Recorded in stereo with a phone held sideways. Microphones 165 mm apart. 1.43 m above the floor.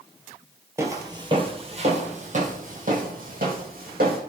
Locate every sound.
0.8 s footsteps: 15° right (ahead or behind), 1.6 m; by 4.2 s 65° right (ahead or behind), 3.5 m